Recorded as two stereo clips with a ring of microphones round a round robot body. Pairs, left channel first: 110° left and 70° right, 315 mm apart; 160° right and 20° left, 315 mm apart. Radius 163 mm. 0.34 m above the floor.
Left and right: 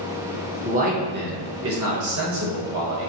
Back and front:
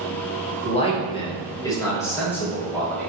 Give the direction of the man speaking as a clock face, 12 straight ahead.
4 o'clock.